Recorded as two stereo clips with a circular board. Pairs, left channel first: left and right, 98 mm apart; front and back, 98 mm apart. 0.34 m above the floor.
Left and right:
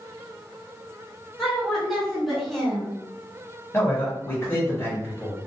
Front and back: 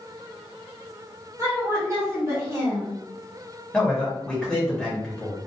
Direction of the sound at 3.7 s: 70° left.